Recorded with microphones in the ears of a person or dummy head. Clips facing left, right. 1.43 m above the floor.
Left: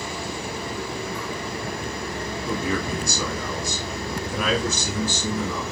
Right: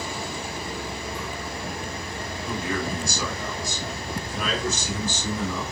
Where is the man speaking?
80° left, 5.5 m; by 5.6 s 65° left (ahead or behind), 6.5 m.